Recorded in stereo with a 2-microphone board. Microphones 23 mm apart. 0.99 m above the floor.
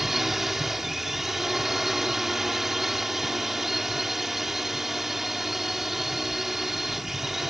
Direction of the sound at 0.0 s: 10° right (ahead or behind).